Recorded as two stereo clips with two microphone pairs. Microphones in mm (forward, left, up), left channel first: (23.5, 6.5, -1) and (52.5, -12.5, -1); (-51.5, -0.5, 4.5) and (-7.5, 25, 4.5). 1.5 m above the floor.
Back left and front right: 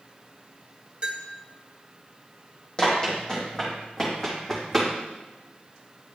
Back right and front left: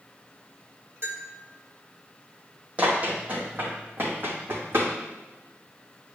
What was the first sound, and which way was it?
A bell, 15° left.